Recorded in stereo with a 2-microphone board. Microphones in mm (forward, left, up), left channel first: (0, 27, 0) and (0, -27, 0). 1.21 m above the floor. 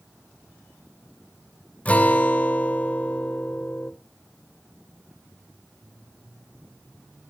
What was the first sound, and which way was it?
A guitar, 25° left (ahead or behind).